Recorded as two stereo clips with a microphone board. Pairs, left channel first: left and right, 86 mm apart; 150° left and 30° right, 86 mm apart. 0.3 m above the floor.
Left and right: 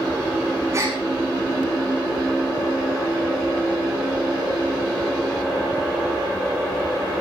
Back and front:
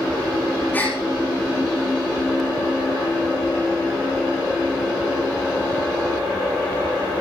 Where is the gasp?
140° right, 9 m.